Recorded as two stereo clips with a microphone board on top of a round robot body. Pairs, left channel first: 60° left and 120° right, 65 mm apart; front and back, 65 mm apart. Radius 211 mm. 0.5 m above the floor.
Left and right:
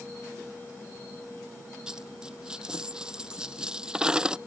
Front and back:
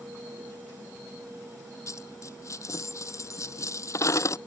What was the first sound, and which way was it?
A dropped coin, 40° right.